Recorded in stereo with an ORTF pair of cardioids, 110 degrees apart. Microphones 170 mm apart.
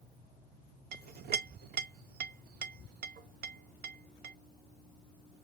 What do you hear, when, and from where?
0.9 s a clink: 60° right, 0.7 m